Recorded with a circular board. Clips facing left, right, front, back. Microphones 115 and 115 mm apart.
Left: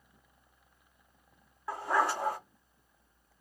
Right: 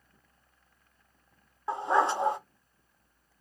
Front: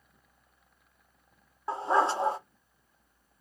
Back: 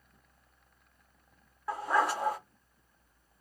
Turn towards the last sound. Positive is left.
turn(degrees=-45)